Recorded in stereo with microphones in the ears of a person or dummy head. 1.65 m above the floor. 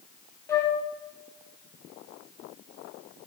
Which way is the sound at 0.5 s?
20° left (ahead or behind).